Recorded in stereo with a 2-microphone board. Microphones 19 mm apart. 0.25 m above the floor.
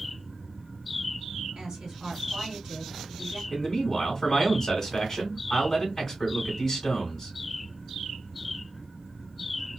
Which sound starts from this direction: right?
A woman speaking, at 1.6 s.